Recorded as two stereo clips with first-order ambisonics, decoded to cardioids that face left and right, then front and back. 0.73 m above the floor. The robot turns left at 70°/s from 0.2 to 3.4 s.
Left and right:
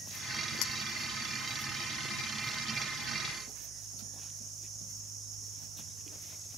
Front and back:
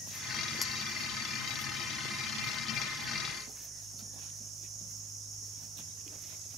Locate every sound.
0.6 s a clink: 75° left, 1.5 m; by 0.7 s 70° left, 1.5 m